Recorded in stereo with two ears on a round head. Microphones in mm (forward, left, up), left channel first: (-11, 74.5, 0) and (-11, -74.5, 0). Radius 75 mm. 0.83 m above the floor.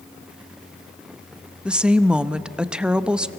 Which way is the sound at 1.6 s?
5° right (ahead or behind).